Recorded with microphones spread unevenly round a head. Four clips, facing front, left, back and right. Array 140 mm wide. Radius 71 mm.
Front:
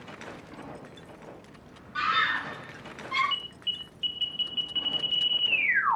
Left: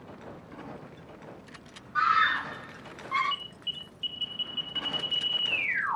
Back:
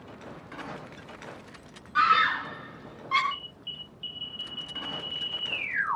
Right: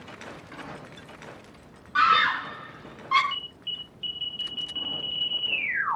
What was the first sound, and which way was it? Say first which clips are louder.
A scream: right 3 dB, back 5 dB; 100° right.